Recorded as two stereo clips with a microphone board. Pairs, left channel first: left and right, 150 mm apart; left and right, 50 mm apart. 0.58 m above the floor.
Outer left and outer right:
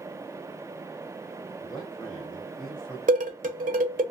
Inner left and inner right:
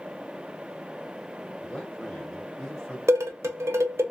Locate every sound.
1.6 s a man speaking: centre (ahead or behind), 1.8 m
3.1 s dishes clattering: 60° right (ahead or behind), 1.0 m